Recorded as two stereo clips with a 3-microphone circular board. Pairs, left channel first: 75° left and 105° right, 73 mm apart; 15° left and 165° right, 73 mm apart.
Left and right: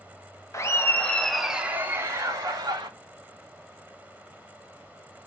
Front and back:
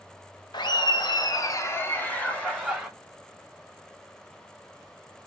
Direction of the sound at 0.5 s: 25° left.